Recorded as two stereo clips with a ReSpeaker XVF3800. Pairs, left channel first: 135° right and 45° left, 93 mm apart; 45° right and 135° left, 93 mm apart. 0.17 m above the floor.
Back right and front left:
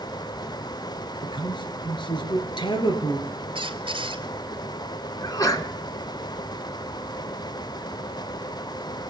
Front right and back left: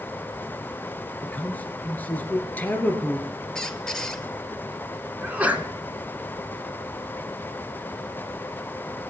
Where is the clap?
I don't hear a clap.